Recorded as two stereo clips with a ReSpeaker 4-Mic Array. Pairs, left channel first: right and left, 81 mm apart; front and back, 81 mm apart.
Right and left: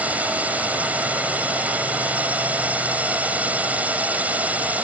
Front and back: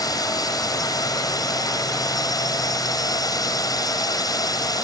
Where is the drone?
25° left.